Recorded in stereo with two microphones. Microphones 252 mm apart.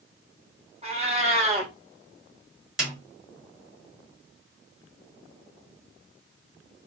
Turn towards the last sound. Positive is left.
turn(degrees=0)  # may be behind; listen again after turning